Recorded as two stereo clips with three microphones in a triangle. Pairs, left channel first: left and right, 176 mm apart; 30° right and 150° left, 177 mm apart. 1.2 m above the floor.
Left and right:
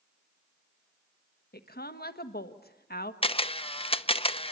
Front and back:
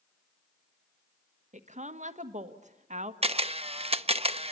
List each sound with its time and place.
1.5 s a woman speaking: 110° left, 1.5 m
3.2 s a camera shutter: 125° left, 0.7 m